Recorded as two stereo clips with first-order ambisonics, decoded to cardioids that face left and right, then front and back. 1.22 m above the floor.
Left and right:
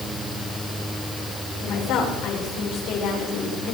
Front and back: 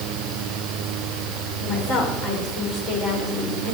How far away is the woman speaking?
About 5 m.